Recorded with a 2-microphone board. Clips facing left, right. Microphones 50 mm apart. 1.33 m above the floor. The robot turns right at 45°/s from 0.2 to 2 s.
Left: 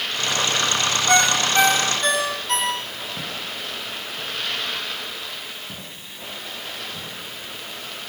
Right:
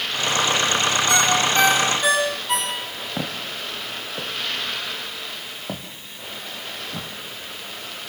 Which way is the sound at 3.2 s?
50° right (ahead or behind).